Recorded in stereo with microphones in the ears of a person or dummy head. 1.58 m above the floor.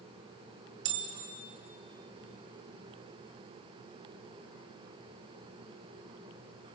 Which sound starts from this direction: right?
A bell, at 0.8 s.